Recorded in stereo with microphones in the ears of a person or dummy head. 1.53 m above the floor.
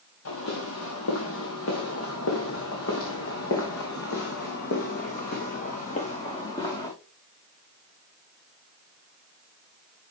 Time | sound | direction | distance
0.2 | footsteps | 70° left (ahead or behind) | 6.5 m